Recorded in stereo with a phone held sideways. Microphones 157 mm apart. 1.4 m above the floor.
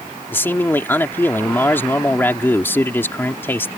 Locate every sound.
0.3 s a man speaking: 15° left (ahead or behind)